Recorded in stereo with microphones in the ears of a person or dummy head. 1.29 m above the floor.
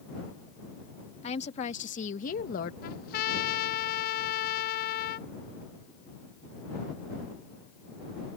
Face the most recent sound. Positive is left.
turn(degrees=50)  # may be behind; listen again after turning